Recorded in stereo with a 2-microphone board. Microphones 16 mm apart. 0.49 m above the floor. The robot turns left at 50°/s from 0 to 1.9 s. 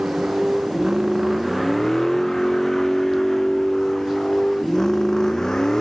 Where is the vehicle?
90° right; by 5.8 s 35° left (ahead or behind).